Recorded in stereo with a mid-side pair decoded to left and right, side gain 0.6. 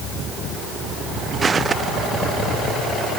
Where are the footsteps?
25° right.